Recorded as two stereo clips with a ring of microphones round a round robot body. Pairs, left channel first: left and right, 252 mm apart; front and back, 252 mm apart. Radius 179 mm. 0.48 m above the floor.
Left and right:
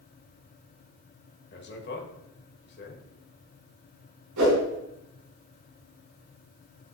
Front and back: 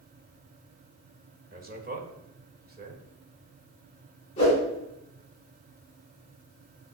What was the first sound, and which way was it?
A man speaking, 130° left.